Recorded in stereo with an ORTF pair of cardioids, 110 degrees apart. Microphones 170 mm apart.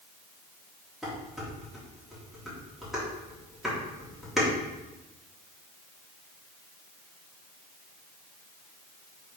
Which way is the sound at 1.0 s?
Straight ahead.